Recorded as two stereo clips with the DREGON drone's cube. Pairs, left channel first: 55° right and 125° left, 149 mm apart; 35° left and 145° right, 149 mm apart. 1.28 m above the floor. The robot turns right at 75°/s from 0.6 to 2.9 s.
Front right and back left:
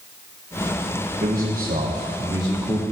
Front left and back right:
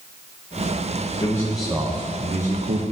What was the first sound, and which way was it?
A man speaking, 95° left.